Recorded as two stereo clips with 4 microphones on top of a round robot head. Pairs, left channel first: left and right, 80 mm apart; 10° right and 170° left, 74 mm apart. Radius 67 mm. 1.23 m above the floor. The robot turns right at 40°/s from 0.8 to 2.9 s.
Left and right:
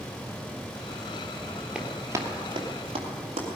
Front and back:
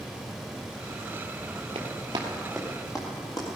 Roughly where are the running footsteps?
Behind.